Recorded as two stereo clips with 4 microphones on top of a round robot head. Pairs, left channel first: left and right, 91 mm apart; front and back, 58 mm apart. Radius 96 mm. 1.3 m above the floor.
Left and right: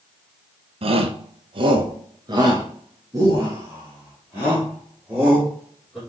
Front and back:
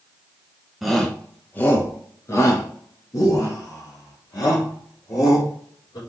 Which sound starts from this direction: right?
A shout, at 0.8 s.